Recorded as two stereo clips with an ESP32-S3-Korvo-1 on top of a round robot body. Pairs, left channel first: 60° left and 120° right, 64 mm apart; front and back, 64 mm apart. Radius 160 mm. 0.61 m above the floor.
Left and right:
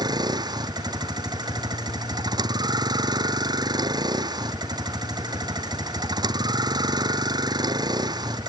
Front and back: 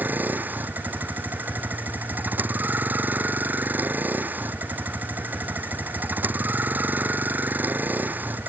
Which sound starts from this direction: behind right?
A vehicle, at 0.0 s.